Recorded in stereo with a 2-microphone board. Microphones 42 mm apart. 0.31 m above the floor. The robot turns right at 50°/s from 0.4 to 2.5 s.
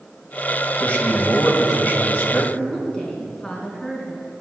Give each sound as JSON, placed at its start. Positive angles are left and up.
{"t": 0.8, "sound": "a man speaking", "azimuth_deg": 50, "distance_m": 1.9}
{"t": 2.5, "sound": "a woman speaking", "side_deg": 20, "distance_m": 3.5}